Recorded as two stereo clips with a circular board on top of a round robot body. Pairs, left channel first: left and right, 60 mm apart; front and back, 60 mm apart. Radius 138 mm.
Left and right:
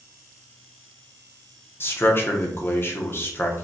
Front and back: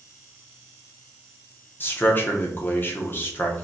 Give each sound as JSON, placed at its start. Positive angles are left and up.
{"t": 1.8, "sound": "a man speaking", "azimuth_deg": 50, "distance_m": 1.1}